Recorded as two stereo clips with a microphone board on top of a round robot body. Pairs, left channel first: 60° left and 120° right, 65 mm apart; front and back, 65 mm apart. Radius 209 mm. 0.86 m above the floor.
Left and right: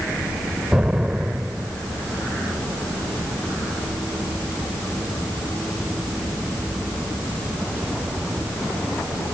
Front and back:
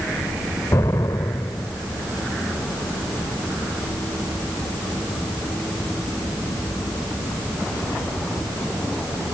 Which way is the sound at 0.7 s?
40° right.